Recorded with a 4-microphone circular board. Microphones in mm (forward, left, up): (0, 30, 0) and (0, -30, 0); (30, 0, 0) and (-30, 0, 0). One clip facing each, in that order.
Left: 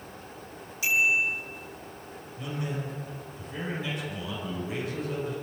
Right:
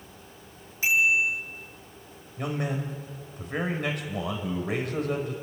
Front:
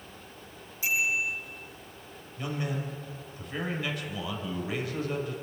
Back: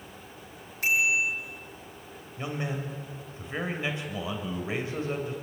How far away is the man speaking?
About 4.5 m.